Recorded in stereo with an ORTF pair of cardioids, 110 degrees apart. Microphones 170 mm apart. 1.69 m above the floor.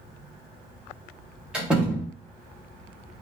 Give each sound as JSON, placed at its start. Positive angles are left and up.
{"t": 1.5, "sound": "a door slam", "azimuth_deg": -5, "distance_m": 1.8}